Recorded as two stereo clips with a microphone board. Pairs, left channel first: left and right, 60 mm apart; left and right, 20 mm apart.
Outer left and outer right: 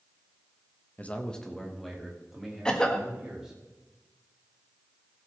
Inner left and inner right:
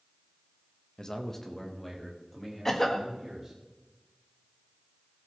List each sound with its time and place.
1.0 s a man speaking: 25° left (ahead or behind), 1.1 m; by 3.6 s 10° right (ahead or behind), 4 m
2.6 s a cough: 15° left (ahead or behind), 1.6 m